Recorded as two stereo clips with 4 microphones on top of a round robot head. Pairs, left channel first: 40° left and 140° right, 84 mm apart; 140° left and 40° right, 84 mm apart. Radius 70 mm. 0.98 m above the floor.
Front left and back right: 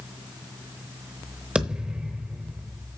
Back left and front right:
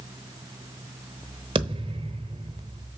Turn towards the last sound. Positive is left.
turn(degrees=-60)